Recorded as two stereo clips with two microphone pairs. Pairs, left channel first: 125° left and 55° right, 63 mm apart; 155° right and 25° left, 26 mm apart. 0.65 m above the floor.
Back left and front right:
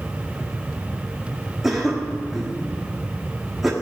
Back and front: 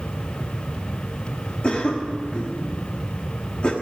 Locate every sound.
1.6 s a cough: 140° right, 1.4 m